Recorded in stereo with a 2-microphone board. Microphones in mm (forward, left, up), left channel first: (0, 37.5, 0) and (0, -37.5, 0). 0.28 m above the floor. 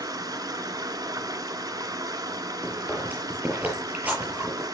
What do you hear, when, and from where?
0.0 s running water: 55° right (ahead or behind), 1.1 m
2.6 s chewing: 20° right (ahead or behind), 7.5 m